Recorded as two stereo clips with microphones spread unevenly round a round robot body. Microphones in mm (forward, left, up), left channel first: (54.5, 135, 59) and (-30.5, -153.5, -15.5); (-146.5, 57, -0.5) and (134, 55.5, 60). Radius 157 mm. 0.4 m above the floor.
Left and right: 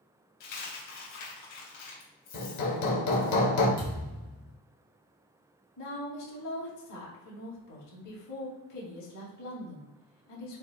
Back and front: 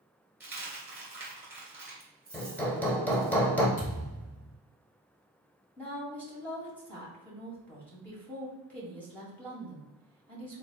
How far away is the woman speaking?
About 2.0 m.